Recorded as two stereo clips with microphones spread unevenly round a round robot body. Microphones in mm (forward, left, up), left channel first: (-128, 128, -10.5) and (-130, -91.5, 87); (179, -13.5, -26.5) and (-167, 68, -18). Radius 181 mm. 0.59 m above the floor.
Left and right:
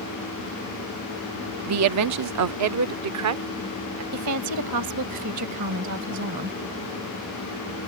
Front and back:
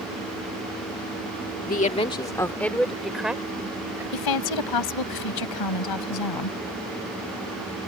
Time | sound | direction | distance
1.7 | a woman speaking | 70° right | ?
4.1 | a woman speaking | 50° right | ?